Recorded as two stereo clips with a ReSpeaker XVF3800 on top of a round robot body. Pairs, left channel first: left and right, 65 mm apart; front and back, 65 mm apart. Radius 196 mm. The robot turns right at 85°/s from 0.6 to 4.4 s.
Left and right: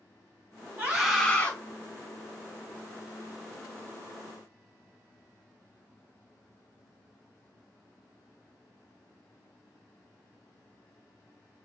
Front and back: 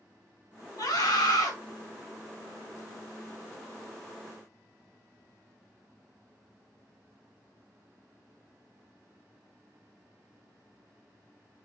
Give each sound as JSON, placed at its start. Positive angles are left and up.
{"t": 0.8, "sound": "a scream", "azimuth_deg": -20, "distance_m": 4.5}